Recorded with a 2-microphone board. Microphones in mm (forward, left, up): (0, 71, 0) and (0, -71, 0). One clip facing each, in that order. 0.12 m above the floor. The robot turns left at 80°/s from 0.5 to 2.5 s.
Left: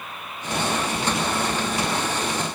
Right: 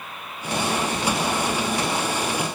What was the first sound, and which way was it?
Only background noise.